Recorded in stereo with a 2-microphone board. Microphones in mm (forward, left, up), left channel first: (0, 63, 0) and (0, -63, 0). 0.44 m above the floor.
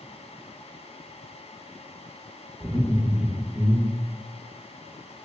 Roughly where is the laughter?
Centre.